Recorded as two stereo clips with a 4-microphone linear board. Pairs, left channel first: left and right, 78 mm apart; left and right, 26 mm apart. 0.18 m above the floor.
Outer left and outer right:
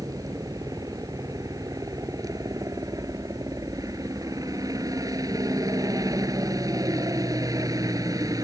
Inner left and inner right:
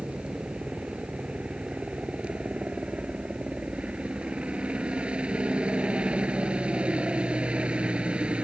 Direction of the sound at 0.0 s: 50° right (ahead or behind).